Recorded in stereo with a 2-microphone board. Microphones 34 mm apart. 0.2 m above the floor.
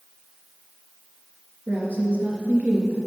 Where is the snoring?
I don't hear snoring.